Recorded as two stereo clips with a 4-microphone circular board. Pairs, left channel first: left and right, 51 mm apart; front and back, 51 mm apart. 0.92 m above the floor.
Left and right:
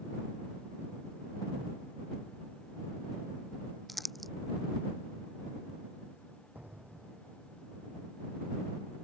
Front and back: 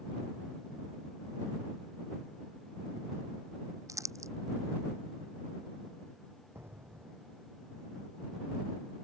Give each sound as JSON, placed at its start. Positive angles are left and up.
{"t": 3.9, "sound": "crumpling", "azimuth_deg": 180}
{"t": 6.5, "sound": "an explosion", "azimuth_deg": -145}